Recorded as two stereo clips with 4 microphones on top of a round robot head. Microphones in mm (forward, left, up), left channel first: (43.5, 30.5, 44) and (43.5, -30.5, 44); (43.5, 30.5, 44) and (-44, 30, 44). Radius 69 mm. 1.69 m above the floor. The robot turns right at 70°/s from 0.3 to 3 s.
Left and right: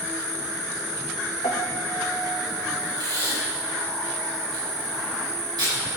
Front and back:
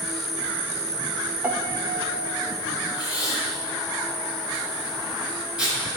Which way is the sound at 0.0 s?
90° left.